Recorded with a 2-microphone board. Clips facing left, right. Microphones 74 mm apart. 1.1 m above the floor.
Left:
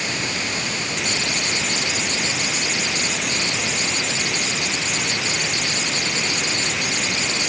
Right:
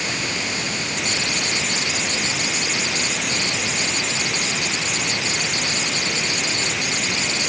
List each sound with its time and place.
Only background noise.